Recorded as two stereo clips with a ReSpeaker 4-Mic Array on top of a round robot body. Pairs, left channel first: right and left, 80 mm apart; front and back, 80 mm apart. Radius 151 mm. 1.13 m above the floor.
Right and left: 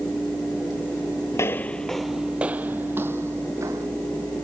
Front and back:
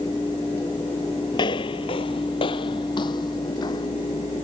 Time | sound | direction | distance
1.3 | footsteps | 35° right | ?